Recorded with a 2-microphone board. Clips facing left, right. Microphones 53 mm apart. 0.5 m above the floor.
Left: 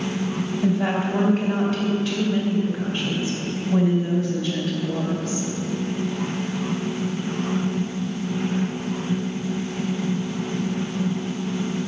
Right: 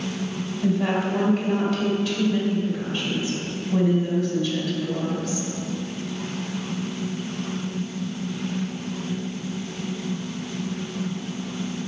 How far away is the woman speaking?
About 2.5 m.